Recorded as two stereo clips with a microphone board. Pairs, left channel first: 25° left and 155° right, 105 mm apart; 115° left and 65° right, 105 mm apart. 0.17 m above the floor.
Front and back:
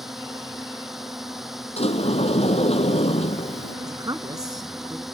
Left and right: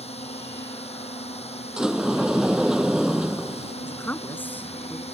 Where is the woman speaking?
175° left.